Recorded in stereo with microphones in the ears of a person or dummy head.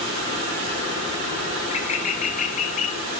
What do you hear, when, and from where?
1.6 s a bird: 40° left (ahead or behind), 1.9 m